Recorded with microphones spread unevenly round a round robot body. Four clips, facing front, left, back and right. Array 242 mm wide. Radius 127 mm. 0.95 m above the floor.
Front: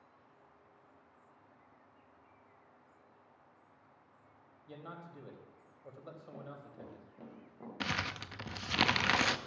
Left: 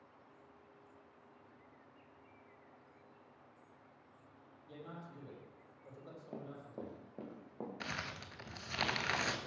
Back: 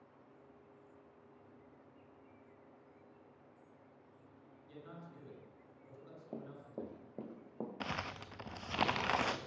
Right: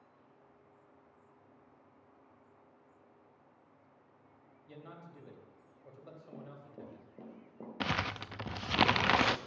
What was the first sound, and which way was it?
A man speaking, 10° right.